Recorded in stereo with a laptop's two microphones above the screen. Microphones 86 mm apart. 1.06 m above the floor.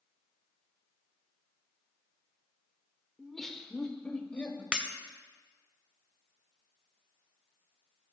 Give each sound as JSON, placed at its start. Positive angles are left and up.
{"t": 3.2, "sound": "laughter", "side_deg": 0, "distance_m": 1.7}
{"t": 4.7, "sound": "breaking glass", "side_deg": -10, "distance_m": 0.9}